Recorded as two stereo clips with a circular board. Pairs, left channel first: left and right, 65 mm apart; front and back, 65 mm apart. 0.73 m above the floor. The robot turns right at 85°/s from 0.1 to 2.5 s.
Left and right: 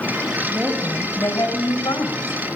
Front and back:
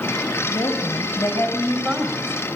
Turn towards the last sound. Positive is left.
turn(degrees=145)